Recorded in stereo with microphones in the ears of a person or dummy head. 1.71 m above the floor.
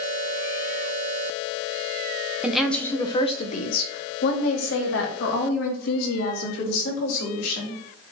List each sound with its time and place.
2.4 s a woman speaking: 5° right (ahead or behind), 1.0 m; by 7.8 s 85° left, 4 m